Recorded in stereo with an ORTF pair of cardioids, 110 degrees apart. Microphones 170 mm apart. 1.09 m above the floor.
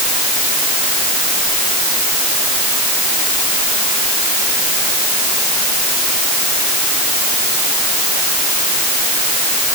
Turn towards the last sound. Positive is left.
No sound to turn to.